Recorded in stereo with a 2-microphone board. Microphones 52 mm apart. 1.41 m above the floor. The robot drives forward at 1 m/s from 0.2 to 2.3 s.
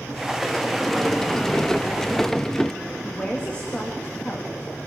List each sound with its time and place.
0.4 s a sliding door: 5° left (ahead or behind), 1.6 m; by 2.7 s 10° left (ahead or behind), 0.7 m
3.0 s a woman speaking: 25° left (ahead or behind), 3 m